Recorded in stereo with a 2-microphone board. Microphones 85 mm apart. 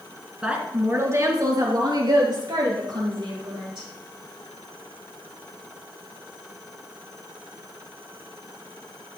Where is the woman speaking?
10° right (ahead or behind), 1.4 m; by 3.9 s 65° right (ahead or behind), 4 m.